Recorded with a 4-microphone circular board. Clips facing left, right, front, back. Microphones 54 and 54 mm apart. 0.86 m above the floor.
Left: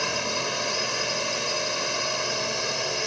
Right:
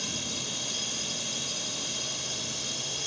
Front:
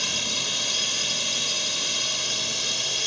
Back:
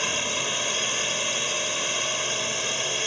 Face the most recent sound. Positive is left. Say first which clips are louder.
# left 10 dB, back 3 dB
turn(degrees=115)